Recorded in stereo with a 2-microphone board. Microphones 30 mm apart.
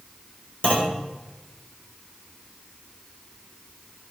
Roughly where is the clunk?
Left.